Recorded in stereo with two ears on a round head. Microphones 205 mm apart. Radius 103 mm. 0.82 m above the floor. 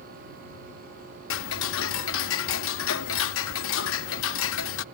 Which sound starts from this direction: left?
Ticking, at 1.3 s.